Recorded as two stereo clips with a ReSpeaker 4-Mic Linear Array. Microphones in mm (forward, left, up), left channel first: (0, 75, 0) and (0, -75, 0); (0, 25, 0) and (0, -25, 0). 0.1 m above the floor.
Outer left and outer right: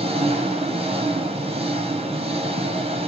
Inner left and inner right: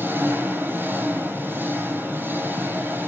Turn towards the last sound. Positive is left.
turn(degrees=-40)  # may be behind; listen again after turning